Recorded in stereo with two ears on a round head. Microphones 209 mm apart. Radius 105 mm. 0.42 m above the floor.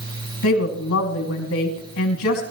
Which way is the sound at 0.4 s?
70° left (ahead or behind).